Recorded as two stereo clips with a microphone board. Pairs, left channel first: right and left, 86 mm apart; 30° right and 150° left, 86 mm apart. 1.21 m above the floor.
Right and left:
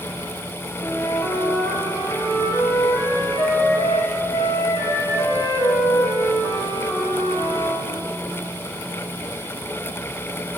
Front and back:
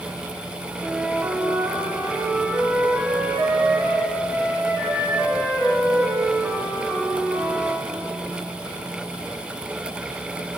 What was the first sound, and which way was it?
A flute, 140° right.